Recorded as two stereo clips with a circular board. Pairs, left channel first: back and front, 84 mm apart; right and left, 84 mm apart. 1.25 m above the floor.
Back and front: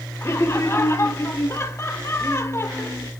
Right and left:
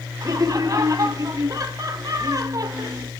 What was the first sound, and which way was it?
Laughter, 130° left.